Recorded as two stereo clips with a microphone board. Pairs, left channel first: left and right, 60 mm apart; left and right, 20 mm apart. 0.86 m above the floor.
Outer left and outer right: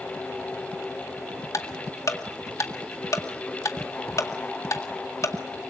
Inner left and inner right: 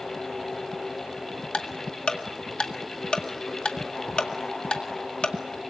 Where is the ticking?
65° left (ahead or behind), 1.8 m.